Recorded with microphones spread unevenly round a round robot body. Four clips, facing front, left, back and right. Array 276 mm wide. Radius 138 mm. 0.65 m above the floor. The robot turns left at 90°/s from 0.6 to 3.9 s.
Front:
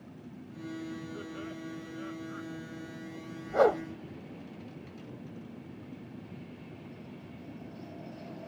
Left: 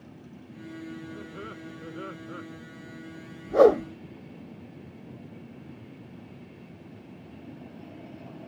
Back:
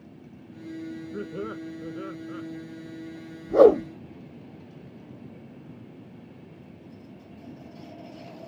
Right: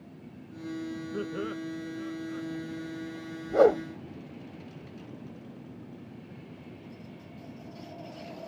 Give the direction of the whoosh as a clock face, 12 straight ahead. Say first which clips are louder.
Left 3 dB, back 9 dB; 6 o'clock.